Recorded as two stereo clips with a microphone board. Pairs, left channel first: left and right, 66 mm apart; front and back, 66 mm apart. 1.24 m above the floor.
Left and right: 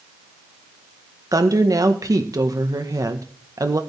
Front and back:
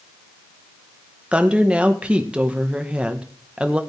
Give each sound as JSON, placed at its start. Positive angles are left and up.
{"t": 1.3, "sound": "a woman speaking", "azimuth_deg": -110, "distance_m": 1.4}